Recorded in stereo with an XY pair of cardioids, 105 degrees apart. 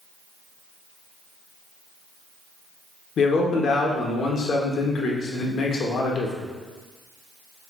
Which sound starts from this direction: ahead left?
A man speaking, at 3.2 s.